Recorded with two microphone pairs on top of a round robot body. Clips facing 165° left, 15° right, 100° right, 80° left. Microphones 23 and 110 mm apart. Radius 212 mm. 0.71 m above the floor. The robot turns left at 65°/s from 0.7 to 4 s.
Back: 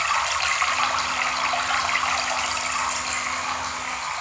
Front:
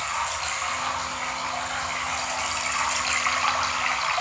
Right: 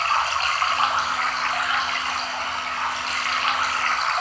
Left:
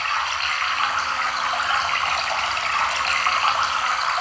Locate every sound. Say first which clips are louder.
0.0 s running water: back 5 dB, right 3 dB; 150° right, 2 m; by 4.2 s 5° right, 2 m